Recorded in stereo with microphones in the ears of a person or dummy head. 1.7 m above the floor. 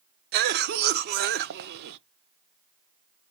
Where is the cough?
55° right (ahead or behind), 0.8 m.